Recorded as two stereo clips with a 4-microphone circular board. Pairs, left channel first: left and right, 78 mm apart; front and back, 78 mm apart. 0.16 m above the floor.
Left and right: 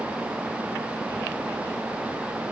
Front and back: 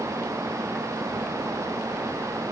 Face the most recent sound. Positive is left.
No sound to turn to.